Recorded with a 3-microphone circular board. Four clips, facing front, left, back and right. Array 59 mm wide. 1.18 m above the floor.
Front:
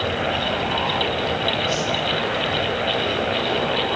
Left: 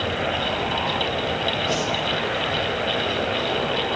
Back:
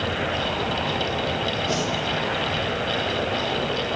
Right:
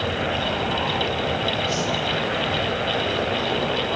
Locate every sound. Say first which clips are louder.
1.7 s a whoosh: left 1 dB, front 1 dB; 135° left, 3 m